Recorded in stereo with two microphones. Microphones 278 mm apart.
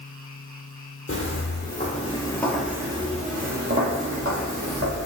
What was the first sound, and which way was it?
Footsteps, 50° left (ahead or behind).